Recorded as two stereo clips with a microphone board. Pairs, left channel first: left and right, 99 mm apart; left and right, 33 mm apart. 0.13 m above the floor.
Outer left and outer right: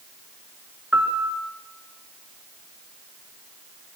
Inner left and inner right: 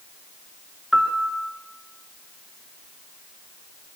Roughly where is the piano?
Right.